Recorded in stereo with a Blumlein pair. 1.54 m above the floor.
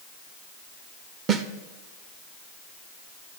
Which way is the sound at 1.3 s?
25° right.